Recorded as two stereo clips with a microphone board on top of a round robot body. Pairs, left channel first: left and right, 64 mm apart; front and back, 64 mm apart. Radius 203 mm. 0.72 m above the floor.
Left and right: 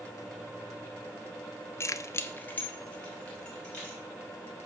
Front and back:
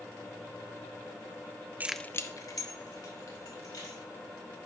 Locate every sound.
1.8 s keys jangling: 125° left, 0.5 m; by 4.0 s 15° left, 3 m